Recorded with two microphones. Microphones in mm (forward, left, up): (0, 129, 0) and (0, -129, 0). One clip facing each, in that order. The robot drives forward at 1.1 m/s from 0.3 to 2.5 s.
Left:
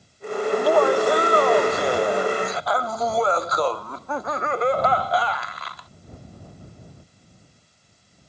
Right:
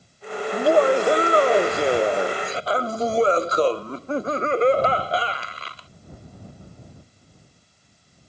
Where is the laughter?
25° right (ahead or behind); by 5.9 s 30° right (ahead or behind).